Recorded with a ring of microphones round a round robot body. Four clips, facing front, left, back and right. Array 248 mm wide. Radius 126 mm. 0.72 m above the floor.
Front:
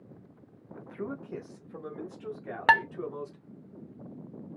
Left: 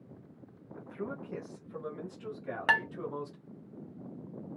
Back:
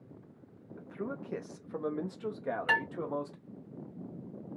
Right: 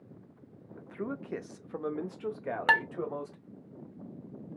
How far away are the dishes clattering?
About 0.7 m.